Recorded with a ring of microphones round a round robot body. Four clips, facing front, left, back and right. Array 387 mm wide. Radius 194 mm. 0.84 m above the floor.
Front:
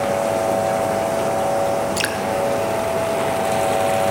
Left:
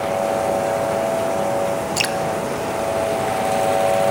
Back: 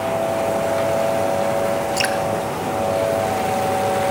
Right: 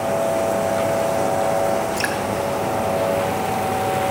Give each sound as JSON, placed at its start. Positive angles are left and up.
{"t": 2.0, "sound": "dripping", "azimuth_deg": 85, "distance_m": 0.6}